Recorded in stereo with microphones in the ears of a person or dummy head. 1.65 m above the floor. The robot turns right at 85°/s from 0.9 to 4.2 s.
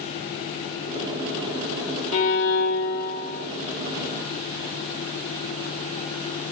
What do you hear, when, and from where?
2.1 s a violin: 35° left, 1.5 m; by 3.5 s 150° left, 1.5 m